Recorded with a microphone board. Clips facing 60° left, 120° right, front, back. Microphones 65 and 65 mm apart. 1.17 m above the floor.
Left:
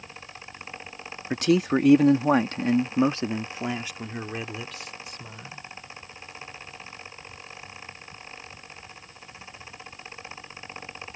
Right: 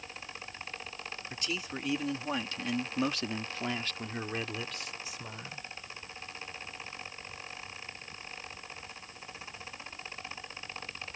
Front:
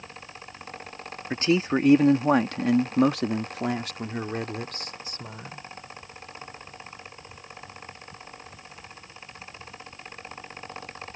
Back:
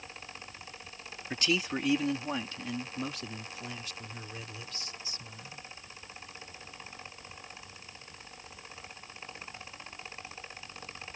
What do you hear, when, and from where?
1.3 s a man speaking: 60° left; by 5.6 s 40° right